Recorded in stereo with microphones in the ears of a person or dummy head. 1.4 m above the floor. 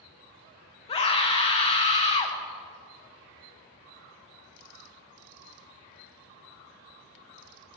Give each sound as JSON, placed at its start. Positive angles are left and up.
{"t": 0.9, "sound": "a scream", "side_deg": 25, "distance_m": 1.1}